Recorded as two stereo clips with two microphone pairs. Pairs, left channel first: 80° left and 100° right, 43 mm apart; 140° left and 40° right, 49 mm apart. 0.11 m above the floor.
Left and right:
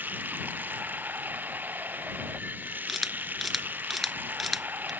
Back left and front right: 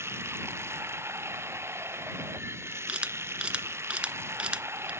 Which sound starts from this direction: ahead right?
Running water, at 0.0 s.